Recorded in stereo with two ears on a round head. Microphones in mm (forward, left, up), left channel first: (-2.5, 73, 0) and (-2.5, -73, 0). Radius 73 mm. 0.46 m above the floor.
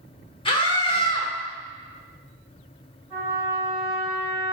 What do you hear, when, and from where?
0.5 s a scream: 30° left (ahead or behind), 1.3 m
3.1 s a trumpet: 10° right (ahead or behind), 2 m